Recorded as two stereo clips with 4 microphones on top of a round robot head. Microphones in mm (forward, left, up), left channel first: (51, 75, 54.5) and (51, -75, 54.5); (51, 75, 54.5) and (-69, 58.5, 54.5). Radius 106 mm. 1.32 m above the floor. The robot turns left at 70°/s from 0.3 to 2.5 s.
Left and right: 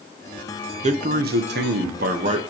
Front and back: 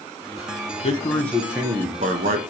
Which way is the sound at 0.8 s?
40° right.